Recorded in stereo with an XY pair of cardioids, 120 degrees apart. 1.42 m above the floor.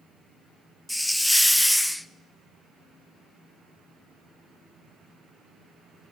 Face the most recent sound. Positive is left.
turn(degrees=5)